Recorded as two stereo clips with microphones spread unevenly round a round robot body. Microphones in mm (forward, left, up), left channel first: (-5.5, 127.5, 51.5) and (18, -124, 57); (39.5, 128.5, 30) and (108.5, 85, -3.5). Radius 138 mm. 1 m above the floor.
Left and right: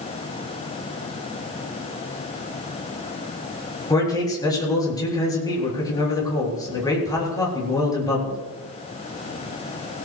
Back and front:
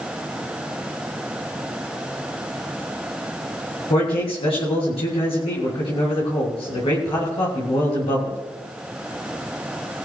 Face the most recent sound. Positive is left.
turn(degrees=170)